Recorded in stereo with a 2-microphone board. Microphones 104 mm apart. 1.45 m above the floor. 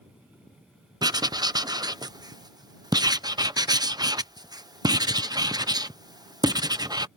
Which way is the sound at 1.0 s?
40° right (ahead or behind).